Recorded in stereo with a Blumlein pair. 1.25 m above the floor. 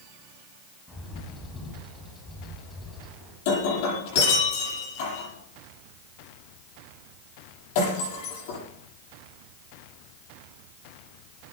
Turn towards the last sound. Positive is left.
turn(degrees=50)